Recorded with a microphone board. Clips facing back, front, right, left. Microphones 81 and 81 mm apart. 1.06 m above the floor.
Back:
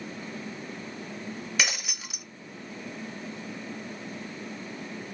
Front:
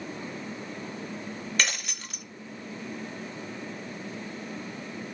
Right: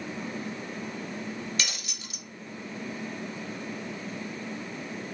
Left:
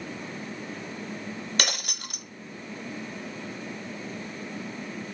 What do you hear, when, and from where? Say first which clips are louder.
1.6 s breaking glass: even, left 5 dB; 100° left, 0.7 m